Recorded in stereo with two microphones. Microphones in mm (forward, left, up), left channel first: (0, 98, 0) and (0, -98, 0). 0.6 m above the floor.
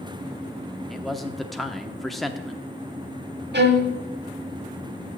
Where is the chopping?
I don't hear chopping.